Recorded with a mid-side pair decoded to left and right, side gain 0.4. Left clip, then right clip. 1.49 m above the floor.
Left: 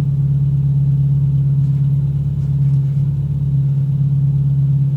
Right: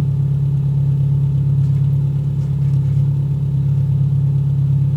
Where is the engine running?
40° right, 2.5 m.